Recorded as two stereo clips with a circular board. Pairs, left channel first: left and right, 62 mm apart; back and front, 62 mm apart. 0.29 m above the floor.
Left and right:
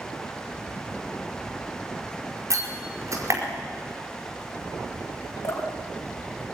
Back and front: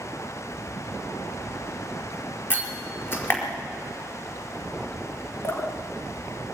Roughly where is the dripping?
Behind left.